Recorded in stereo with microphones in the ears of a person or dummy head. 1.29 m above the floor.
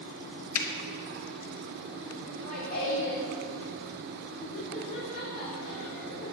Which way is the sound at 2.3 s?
55° left (ahead or behind).